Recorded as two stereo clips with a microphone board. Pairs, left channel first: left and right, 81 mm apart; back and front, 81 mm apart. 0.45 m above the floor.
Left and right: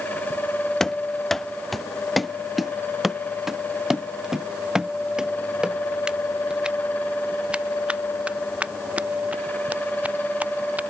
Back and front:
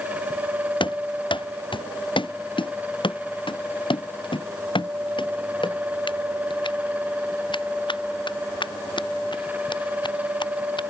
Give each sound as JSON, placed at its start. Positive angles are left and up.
{"t": 0.8, "sound": "running footsteps", "azimuth_deg": 175}